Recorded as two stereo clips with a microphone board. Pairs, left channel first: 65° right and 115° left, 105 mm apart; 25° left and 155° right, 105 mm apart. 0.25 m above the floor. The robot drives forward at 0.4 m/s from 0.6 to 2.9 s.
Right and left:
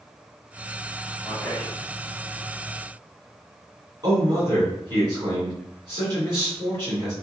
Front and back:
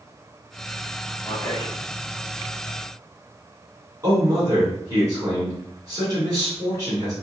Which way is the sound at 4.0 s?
150° left.